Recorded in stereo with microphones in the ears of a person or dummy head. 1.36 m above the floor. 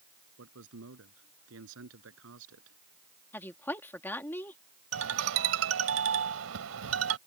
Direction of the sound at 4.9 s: 85° right.